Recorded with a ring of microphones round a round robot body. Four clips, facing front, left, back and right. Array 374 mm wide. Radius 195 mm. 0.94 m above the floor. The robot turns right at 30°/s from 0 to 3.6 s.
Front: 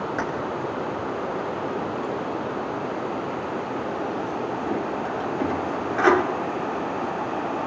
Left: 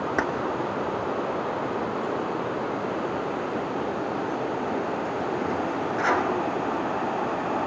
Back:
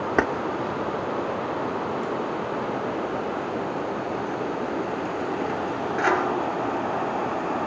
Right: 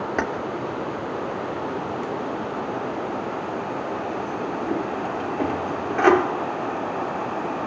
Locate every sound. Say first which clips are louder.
0.2 s keys jangling: even, back 3 dB; 170° right, 2.5 m; by 6.2 s 70° right, 2.5 m